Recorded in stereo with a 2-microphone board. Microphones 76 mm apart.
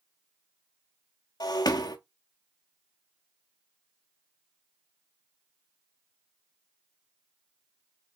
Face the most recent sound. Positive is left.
turn(degrees=60)  # may be behind; listen again after turning